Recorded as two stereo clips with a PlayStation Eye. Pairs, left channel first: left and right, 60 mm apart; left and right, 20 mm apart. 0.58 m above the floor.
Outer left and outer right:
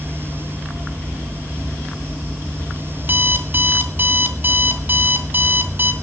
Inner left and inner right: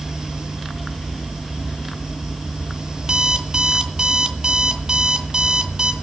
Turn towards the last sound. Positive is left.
turn(degrees=-35)  # may be behind; listen again after turning